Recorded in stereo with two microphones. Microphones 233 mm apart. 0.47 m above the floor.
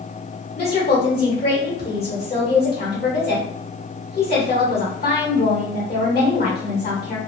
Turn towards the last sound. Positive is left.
turn(degrees=40)  # may be behind; listen again after turning